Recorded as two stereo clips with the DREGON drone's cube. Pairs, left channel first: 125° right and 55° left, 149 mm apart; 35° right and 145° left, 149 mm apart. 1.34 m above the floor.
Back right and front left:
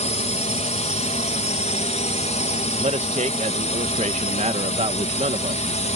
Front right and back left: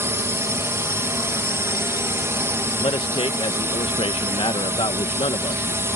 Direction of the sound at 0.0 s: 145° right.